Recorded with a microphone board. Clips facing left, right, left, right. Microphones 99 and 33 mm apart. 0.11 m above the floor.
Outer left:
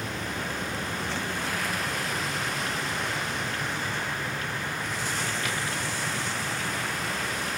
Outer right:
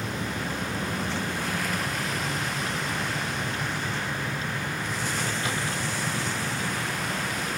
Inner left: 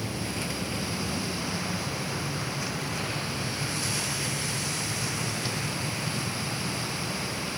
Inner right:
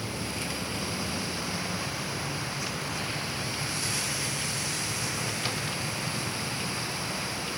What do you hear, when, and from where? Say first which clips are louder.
0.0 s a vehicle: outer right 2 dB, inner left 1 dB; 25° right (ahead or behind)